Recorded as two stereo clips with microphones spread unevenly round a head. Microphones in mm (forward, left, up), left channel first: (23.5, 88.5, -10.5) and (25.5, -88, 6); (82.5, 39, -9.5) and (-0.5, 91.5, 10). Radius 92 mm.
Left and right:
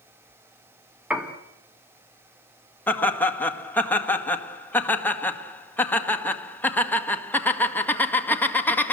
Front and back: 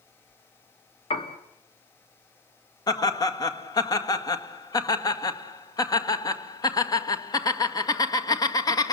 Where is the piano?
5° right, 2.0 m.